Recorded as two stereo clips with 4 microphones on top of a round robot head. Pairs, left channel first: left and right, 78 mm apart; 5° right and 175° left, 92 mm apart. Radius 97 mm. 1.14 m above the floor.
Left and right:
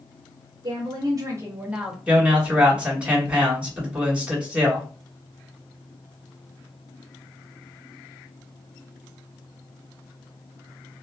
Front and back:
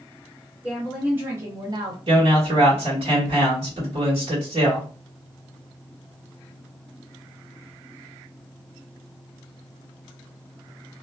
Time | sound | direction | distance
0.6 | a woman speaking | 100° right | 0.9 m
2.1 | a man speaking | 165° right | 1.6 m